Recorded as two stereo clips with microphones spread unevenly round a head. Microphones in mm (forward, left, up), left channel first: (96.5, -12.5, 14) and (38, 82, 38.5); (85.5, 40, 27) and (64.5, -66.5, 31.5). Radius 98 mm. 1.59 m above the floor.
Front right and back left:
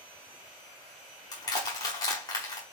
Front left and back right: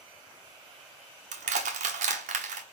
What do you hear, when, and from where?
1.3 s crushing: 125° right, 0.9 m